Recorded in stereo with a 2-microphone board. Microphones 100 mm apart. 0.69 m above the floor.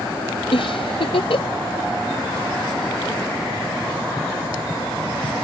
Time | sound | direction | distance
0.5 | a giggle | 75° left (ahead or behind) | ?